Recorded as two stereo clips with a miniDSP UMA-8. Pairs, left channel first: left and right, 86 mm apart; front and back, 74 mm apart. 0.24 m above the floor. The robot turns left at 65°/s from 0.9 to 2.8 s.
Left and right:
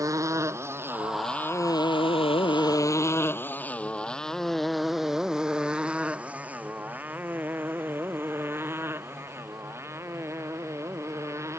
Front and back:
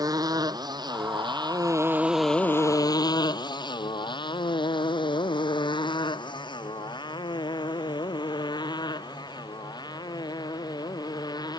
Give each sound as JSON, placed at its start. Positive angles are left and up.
{"t": 0.0, "sound": "a motorcycle", "azimuth_deg": -140}